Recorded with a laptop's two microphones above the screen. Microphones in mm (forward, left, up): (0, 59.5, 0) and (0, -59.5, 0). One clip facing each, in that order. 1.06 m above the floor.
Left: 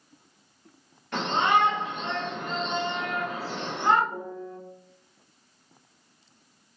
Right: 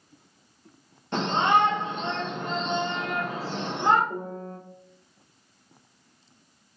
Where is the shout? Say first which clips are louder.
Right 1 dB; 25° right (ahead or behind), 1.2 m.